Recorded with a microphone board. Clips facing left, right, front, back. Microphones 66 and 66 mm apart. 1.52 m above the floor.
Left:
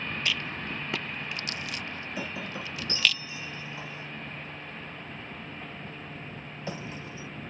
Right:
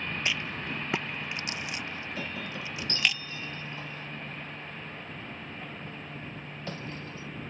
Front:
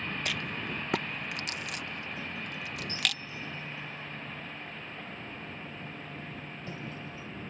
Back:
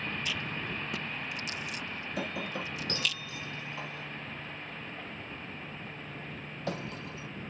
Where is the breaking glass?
165° left.